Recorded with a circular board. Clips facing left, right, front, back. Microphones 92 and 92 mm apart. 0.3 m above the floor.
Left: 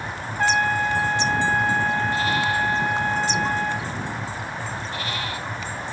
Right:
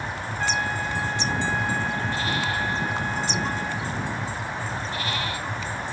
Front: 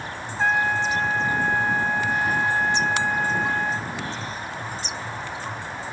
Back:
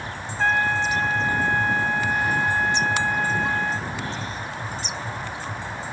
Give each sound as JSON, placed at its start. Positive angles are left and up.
{"t": 0.4, "sound": "a trumpet", "azimuth_deg": 75, "distance_m": 1.0}